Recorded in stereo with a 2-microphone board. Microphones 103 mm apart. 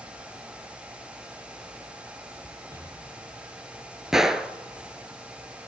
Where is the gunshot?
5° right (ahead or behind), 0.9 m.